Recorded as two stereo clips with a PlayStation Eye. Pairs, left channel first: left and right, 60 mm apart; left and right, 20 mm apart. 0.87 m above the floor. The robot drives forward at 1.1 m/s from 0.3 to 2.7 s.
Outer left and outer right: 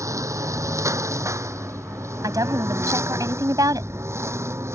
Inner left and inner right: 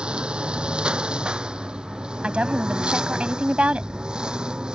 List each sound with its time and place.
0.0 s a lawn mower: 60° right (ahead or behind); by 4.8 s 45° right (ahead or behind)
2.2 s a woman speaking: 75° right (ahead or behind); by 3.9 s 80° right